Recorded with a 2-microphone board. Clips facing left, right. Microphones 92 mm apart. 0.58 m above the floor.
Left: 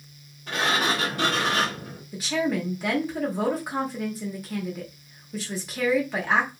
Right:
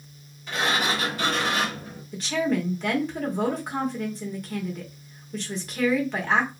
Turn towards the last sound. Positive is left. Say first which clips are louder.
# right 1 dB
turn(degrees=5)  # may be behind; listen again after turning